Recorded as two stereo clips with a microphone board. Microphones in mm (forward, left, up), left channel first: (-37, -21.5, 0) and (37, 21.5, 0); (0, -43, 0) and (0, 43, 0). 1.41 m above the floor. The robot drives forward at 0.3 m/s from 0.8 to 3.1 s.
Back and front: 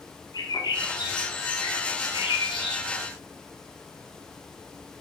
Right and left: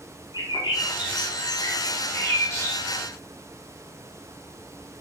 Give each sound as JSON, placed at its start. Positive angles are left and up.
{"t": 0.3, "sound": "a bird", "azimuth_deg": -115, "distance_m": 0.6}